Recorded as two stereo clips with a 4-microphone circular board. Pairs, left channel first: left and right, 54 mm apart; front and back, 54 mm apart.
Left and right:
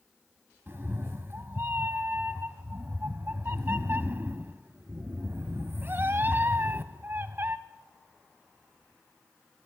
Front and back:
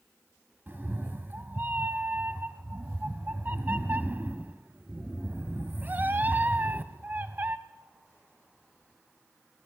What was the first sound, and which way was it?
A cat meowing, 130° right.